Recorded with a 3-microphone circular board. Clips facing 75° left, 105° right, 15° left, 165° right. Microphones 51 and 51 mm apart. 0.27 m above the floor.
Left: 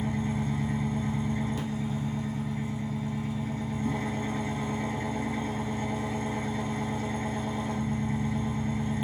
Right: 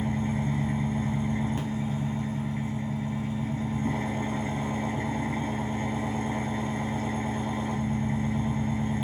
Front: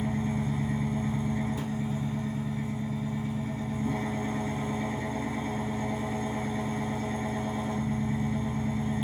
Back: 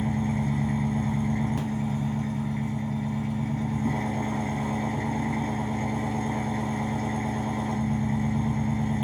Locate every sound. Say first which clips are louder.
0.0 s an engine running: right 1 dB, back 3 dB; 155° right, 0.9 m